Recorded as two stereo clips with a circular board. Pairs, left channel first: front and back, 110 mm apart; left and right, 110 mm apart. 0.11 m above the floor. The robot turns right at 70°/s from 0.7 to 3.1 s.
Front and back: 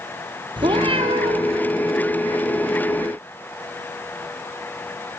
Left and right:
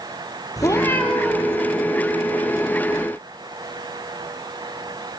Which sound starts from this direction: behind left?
A cat meowing, at 0.6 s.